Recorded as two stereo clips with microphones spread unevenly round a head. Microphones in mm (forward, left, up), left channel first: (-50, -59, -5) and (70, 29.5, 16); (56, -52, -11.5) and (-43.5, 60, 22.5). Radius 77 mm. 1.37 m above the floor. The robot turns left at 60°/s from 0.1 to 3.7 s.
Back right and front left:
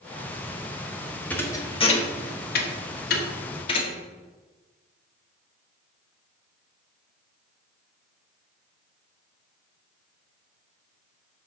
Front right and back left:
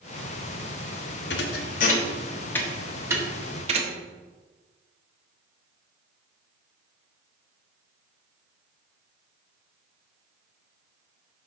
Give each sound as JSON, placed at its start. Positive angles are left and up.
{"t": 1.3, "sound": "a thud", "azimuth_deg": -60, "distance_m": 1.1}